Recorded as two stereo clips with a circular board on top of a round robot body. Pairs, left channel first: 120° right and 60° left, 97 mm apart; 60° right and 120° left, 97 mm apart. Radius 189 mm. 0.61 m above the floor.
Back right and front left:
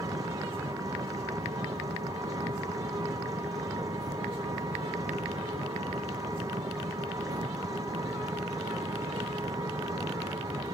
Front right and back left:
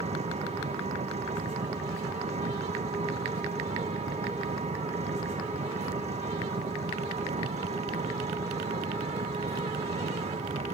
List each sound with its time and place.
0.0 s an engine running: 115° left